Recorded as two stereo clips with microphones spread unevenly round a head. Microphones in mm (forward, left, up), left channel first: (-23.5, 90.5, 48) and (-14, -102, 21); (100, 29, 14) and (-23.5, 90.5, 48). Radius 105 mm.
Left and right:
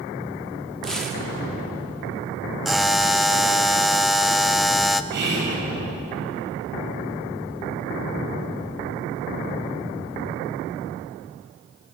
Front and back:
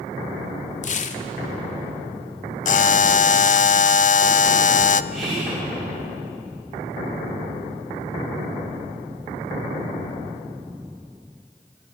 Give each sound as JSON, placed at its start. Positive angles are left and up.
{"t": 0.8, "sound": "tearing paper", "azimuth_deg": 5, "distance_m": 1.7}
{"t": 2.6, "sound": "a buzzer", "azimuth_deg": 0, "distance_m": 0.7}
{"t": 5.1, "sound": "whispering", "azimuth_deg": -120, "distance_m": 8.0}